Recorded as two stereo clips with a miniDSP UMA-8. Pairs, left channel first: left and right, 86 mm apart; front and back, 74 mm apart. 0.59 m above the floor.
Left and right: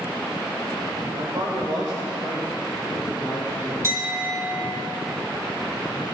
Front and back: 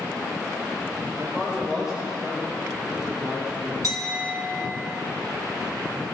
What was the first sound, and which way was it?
A man speaking, 95° right.